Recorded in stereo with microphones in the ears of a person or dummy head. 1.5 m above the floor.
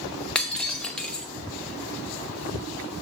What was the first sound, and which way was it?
Breaking glass, 5° left (ahead or behind).